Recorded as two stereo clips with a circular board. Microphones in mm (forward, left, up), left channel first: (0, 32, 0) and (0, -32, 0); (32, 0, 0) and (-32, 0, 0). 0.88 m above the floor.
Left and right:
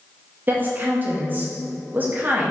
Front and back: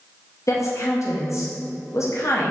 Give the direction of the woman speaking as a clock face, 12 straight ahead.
1 o'clock.